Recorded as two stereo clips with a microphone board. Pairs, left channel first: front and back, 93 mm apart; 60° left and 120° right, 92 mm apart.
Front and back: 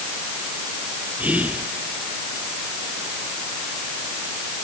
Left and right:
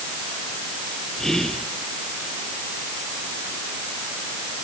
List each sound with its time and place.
1.2 s whispering: 140° left, 1.4 m